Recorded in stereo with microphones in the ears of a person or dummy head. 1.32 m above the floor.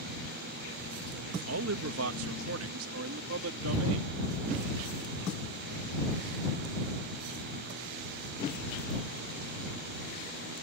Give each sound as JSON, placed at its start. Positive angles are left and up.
{"t": 1.5, "sound": "a man speaking", "side_deg": -75}